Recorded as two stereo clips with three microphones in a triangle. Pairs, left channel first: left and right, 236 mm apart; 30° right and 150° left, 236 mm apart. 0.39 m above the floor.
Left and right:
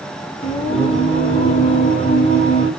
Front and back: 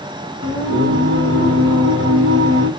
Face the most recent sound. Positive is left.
turn(degrees=150)